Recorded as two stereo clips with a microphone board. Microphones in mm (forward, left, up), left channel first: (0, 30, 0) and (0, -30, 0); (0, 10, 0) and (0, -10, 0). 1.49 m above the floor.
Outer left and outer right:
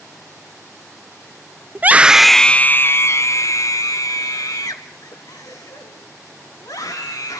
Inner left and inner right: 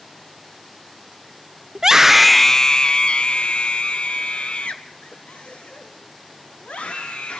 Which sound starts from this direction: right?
A scream, at 1.8 s.